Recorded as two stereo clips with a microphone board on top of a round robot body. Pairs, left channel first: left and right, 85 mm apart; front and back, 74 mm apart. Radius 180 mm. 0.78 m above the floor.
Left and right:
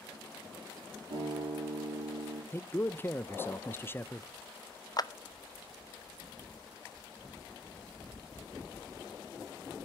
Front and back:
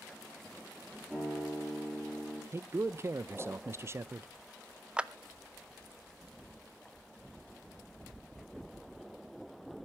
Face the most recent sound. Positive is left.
turn(degrees=110)